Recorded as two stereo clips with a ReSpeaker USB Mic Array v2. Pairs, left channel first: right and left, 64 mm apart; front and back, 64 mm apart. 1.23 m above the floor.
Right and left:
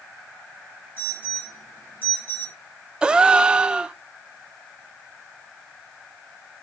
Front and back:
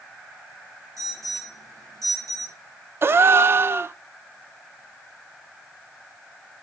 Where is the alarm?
150° right, 8 m.